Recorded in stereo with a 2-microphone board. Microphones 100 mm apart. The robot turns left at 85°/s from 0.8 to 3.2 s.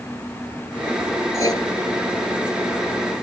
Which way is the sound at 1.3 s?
25° left (ahead or behind).